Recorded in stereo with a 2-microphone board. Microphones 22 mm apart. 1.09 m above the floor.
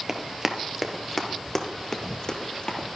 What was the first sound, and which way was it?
Running footsteps, 25° right (ahead or behind).